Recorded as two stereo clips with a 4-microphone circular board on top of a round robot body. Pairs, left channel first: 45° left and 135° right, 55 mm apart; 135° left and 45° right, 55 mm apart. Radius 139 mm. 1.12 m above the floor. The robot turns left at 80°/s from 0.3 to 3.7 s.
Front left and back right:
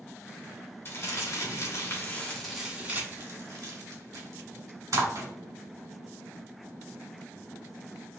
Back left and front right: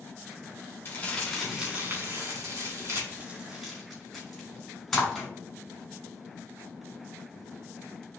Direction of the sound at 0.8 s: 85° left.